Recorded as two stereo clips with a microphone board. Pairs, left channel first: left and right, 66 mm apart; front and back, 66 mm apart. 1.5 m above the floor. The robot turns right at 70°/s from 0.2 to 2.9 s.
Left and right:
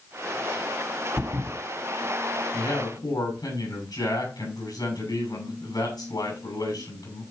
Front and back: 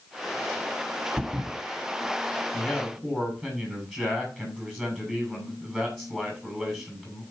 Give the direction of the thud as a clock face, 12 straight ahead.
5 o'clock.